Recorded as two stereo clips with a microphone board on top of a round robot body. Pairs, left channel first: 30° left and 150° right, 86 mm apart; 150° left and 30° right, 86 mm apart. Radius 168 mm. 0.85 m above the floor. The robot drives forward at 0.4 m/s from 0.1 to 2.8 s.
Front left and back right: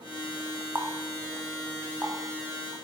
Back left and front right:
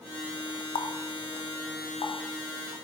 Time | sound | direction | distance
0.8 | a running tap | 145° left | 0.6 m